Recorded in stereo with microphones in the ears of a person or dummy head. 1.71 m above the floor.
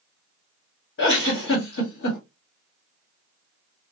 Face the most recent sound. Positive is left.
turn(degrees=60)  # may be behind; listen again after turning